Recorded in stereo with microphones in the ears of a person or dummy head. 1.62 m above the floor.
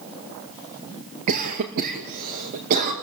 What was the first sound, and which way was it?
A cough, 50° right (ahead or behind).